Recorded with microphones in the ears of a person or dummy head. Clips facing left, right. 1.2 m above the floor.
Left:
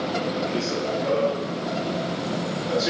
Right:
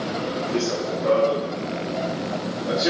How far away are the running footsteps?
About 2.5 m.